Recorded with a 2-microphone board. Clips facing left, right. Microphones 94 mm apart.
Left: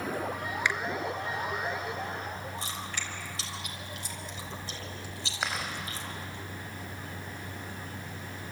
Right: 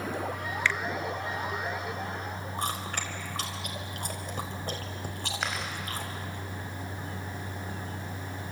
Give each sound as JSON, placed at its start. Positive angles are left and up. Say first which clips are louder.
{"t": 0.7, "sound": "a finger snap", "louder": "right 1 dB", "side_deg": 20, "distance_m": 0.6}
{"t": 2.6, "sound": "chewing", "louder": "right 5 dB", "side_deg": -55, "distance_m": 4.0}
{"t": 5.4, "sound": "chewing", "louder": "left 1 dB", "side_deg": 5, "distance_m": 5.5}